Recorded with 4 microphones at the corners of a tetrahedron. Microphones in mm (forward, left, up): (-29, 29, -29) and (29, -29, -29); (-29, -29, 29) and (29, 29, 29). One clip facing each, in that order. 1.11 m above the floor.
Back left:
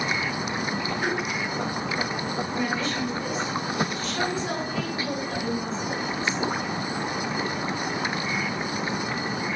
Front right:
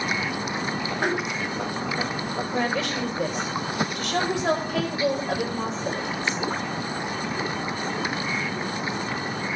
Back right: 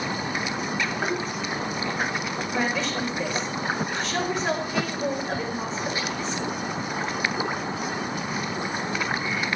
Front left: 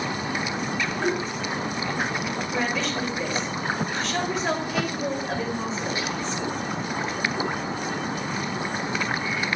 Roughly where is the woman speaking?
Ahead right.